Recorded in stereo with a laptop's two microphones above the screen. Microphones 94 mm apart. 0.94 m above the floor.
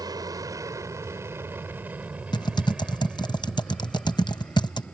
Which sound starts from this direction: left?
Typing on a keyboard, at 2.3 s.